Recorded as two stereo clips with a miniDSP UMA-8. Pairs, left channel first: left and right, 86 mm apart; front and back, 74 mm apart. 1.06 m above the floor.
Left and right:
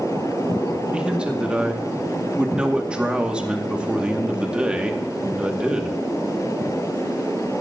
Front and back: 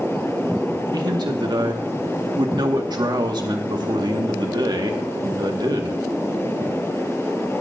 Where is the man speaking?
165° right, 2 m.